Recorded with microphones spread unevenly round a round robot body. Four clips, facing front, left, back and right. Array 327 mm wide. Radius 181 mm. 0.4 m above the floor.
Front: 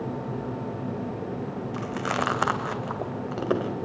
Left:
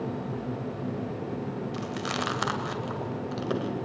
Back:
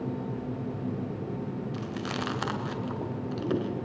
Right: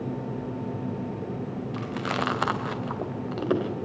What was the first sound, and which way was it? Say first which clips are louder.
Chewing: right 5 dB, front 9 dB; 15° right.